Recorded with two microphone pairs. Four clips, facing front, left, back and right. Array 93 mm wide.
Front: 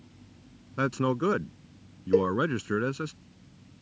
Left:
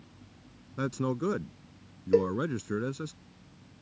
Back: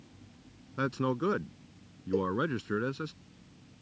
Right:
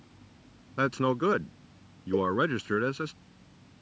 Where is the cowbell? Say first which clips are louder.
Left 3 dB, front 7 dB; 65° left.